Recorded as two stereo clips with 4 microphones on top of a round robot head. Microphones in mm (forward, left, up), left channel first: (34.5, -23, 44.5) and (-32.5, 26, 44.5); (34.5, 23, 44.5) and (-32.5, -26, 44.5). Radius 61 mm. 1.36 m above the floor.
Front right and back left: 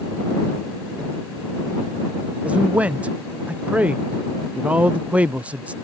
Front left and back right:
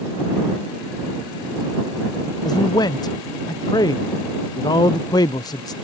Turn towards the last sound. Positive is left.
turn(degrees=70)